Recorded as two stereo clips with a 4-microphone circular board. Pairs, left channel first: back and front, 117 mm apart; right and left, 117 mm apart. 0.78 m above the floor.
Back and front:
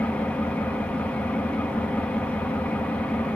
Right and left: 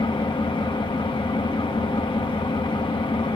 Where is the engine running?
105° right, 0.8 m.